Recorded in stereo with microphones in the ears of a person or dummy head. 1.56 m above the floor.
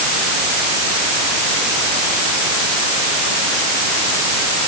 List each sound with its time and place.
Only background noise.